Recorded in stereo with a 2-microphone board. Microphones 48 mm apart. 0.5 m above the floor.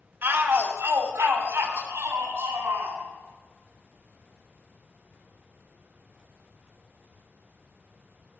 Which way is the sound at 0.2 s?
45° right (ahead or behind).